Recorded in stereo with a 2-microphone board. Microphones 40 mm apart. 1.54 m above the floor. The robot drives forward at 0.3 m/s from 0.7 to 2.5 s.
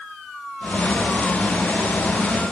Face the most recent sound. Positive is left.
No sound to turn to.